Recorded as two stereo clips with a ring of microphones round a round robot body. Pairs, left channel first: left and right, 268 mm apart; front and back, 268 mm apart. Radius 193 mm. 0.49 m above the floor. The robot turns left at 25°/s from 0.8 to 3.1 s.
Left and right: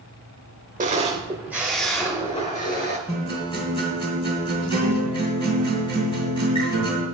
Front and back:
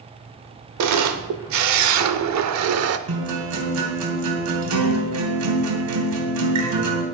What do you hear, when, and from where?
0.8 s a camera shutter: 155° right, 0.8 m; by 3.0 s 150° left, 0.8 m
3.1 s a guitar: 165° left, 2.5 m